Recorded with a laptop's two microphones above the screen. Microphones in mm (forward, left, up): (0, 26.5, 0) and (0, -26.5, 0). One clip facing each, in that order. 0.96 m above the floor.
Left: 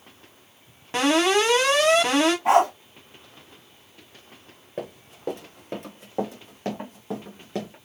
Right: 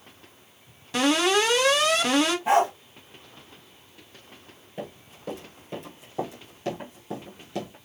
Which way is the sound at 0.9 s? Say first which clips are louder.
Left 2 dB; 35° left (ahead or behind).